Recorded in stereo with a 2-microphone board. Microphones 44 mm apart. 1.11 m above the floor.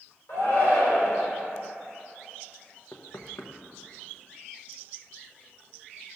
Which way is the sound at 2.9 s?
70° left (ahead or behind).